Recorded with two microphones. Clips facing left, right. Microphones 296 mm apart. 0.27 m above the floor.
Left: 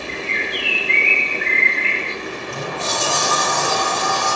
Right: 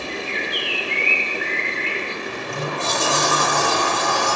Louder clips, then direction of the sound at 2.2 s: Even; 65° right (ahead or behind).